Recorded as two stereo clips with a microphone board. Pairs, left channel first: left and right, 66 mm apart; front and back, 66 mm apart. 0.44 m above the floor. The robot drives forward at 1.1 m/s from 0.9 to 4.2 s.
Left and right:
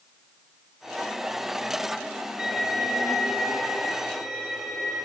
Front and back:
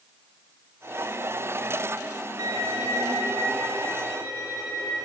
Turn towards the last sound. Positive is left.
turn(degrees=-170)